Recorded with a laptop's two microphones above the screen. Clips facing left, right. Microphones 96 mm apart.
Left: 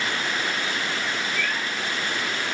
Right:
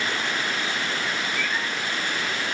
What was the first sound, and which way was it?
A cat meowing, 65° left (ahead or behind).